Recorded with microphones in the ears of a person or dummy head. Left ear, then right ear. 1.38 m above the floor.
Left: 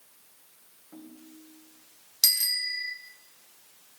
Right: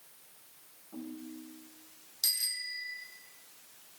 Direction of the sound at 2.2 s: 75° left (ahead or behind).